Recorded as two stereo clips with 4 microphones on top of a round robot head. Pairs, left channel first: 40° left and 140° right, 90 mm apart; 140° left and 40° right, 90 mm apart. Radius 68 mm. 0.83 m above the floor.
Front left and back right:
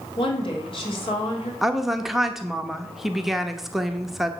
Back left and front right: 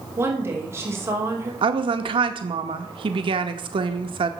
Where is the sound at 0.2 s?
20° left, 2.5 m.